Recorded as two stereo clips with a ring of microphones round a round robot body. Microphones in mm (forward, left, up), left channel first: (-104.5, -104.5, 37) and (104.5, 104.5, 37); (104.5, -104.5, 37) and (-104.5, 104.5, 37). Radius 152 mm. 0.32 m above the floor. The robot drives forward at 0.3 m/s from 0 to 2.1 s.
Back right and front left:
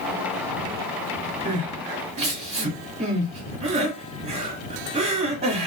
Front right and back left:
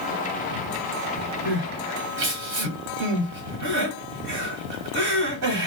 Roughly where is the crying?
Left.